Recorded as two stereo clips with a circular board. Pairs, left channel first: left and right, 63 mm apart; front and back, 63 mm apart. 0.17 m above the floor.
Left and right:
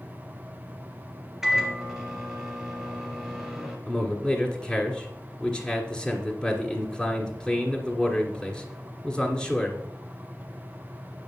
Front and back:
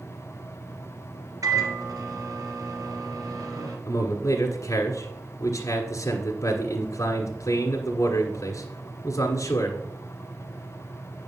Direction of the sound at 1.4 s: 175° right.